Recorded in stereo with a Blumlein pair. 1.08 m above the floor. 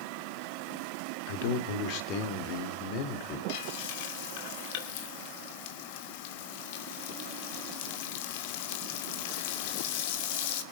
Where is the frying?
50° left, 2.5 m.